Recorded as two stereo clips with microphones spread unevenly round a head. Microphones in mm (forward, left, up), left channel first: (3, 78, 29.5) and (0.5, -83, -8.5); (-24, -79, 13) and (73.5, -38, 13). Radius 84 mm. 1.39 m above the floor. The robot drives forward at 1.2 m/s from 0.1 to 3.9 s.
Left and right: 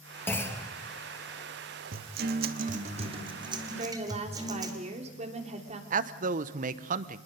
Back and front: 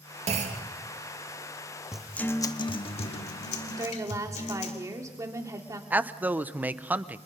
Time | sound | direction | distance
0.3 | a clunk | 10° left | 2.5 m
1.9 | a guitar | 60° right | 1.0 m
3.8 | a woman speaking | 35° right | 3 m
5.9 | a man speaking | 50° right | 1.0 m